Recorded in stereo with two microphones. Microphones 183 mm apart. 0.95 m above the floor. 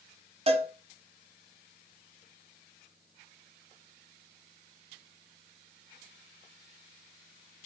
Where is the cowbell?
35° right (ahead or behind), 1.3 m.